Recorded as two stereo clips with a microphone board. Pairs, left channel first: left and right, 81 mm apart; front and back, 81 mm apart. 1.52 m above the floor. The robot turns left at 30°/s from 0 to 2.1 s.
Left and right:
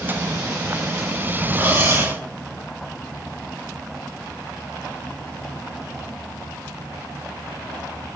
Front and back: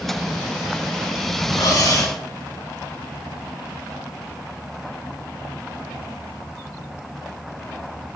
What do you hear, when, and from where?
1.6 s cutlery clinking: 30° right, 2 m; by 2.2 s 45° right, 2 m